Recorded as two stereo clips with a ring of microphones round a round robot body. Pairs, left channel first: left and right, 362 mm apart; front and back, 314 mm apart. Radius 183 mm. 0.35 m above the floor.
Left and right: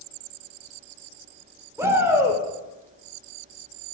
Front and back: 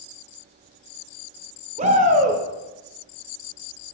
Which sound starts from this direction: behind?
A shout, at 1.8 s.